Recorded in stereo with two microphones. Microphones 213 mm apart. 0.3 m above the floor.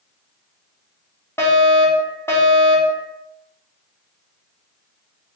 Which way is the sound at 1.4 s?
10° left (ahead or behind).